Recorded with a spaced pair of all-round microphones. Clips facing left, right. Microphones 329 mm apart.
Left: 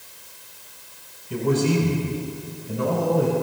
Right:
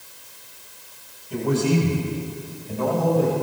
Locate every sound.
1.3 s a man speaking: 35° left (ahead or behind), 5 m; by 3.3 s 15° left (ahead or behind), 5.5 m